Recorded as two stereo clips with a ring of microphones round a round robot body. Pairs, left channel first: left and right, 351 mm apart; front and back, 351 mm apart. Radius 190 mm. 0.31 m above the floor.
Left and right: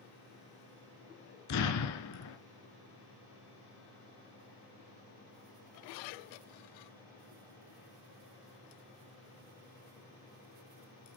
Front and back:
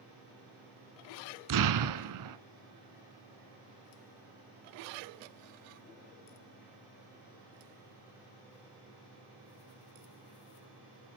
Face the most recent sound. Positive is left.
turn(degrees=140)